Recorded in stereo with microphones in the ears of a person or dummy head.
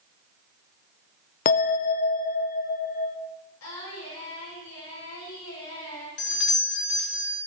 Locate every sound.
1.4 s a bell: 45° left (ahead or behind), 0.6 m
3.6 s singing: 85° left, 7 m
6.2 s a doorbell: 60° left (ahead or behind), 1.7 m